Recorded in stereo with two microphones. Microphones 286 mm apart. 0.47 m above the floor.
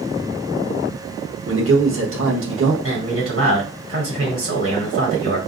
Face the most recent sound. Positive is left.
turn(degrees=-50)  # may be behind; listen again after turning